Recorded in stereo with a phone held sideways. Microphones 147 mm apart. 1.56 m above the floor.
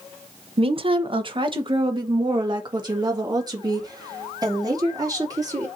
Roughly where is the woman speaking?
Right.